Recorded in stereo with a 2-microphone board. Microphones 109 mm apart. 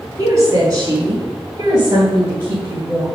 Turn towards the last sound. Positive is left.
turn(degrees=-15)  # may be behind; listen again after turning